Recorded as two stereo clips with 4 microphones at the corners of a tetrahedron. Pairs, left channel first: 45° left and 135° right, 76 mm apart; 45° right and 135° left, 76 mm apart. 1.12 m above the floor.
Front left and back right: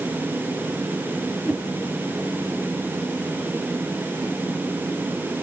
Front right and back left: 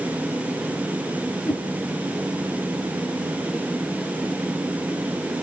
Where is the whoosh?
35° right, 5 m.